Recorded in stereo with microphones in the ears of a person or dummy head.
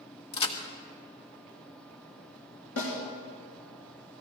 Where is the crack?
30° left (ahead or behind), 1.3 m.